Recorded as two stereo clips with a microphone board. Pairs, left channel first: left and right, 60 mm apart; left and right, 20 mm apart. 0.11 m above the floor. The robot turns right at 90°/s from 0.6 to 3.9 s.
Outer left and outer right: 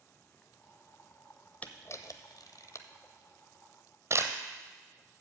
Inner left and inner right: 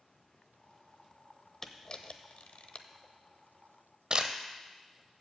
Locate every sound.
1.6 s a camera shutter: 25° left (ahead or behind), 0.7 m; by 4.3 s 45° right (ahead or behind), 0.7 m